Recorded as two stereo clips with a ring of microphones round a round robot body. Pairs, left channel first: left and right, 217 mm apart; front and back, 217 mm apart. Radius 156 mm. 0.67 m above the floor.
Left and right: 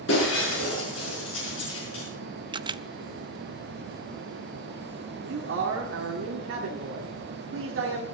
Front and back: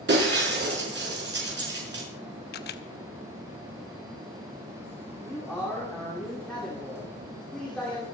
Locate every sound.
0.1 s breaking glass: 145° left, 5.5 m
2.5 s a camera shutter: 25° right, 0.6 m
5.2 s a man speaking: 85° right, 2 m